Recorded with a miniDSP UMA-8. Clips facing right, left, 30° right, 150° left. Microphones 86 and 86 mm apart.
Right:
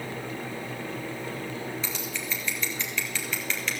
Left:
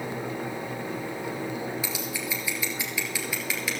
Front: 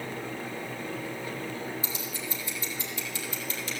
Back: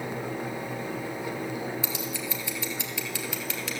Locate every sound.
1.8 s scissors: 170° left, 1.8 m